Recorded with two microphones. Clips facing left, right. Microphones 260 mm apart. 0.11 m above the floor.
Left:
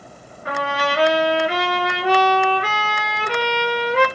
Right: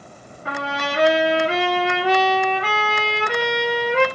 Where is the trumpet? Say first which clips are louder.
Left 3 dB; 30° right (ahead or behind), 1.9 m.